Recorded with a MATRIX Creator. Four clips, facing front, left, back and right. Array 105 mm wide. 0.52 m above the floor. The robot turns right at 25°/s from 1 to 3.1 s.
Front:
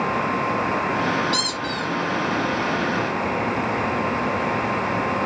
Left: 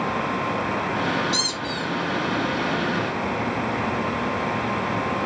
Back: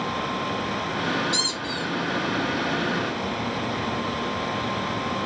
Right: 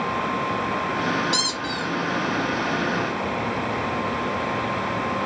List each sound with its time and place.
1.3 s a squeak: 55° right, 1.8 m; by 1.9 s 40° right, 1.8 m